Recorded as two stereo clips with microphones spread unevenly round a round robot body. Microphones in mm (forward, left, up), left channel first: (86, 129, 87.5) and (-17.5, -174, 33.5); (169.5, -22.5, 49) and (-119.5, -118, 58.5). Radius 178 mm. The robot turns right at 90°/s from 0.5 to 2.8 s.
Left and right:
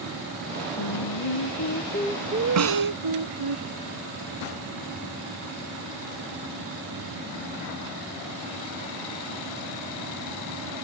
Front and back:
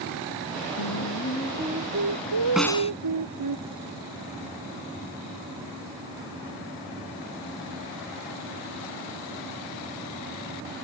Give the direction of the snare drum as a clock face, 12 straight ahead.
2 o'clock.